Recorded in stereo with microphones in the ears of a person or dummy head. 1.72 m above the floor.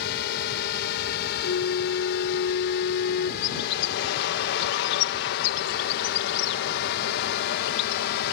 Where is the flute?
70° left (ahead or behind).